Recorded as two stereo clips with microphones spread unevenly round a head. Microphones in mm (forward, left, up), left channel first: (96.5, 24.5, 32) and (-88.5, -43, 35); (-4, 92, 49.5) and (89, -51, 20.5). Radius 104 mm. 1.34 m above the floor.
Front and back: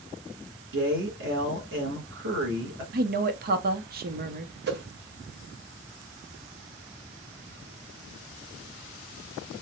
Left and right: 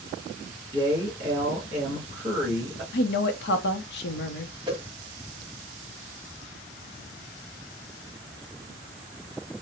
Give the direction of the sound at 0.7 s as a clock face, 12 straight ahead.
4 o'clock.